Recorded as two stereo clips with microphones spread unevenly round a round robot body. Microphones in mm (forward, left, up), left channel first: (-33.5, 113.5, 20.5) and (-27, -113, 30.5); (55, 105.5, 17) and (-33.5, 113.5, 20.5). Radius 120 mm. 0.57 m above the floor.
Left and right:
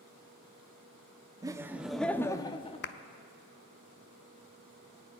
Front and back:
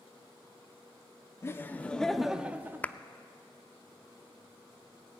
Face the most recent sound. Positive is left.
turn(degrees=65)